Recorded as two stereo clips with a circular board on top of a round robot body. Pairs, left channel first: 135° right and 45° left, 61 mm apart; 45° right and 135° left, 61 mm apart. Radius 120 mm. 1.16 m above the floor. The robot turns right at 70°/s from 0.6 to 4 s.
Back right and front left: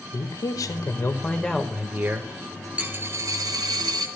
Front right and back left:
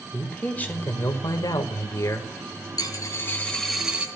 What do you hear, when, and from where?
0.1 s a man speaking: 110° right, 1.7 m; by 2.7 s 35° left, 1.7 m
2.8 s a dropped coin: 25° right, 1.4 m; by 4.1 s 60° left, 1.4 m